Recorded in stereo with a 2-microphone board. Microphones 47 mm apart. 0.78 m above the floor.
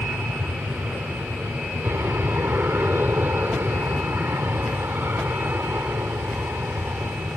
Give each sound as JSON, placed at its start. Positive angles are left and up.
{"t": 0.0, "sound": "an aircraft", "side_deg": -50}